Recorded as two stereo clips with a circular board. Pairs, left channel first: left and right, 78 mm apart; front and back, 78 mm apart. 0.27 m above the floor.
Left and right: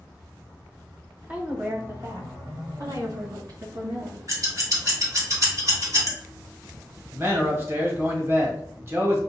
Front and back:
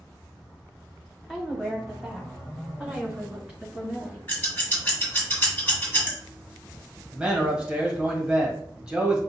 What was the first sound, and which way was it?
A woman speaking, 95° right.